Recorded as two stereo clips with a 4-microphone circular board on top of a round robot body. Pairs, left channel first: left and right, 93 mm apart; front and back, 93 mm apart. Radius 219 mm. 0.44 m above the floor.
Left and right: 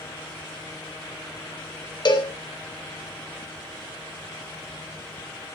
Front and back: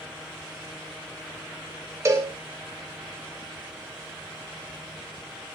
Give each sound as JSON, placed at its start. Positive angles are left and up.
{"t": 2.0, "sound": "a cowbell", "azimuth_deg": 125, "distance_m": 2.5}